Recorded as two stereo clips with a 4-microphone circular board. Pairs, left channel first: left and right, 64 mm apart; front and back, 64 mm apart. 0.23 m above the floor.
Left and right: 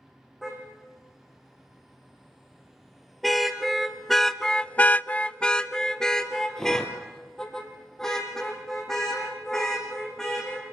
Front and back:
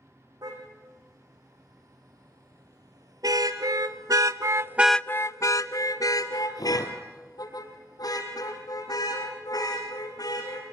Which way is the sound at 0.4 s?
Straight behind.